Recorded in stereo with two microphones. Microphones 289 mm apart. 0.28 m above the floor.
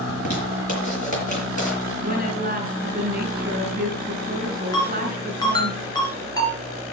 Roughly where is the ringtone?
Centre.